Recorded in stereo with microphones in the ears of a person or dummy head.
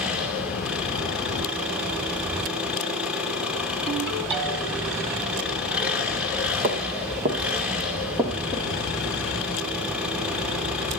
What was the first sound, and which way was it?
An engine running, 10° right (ahead or behind).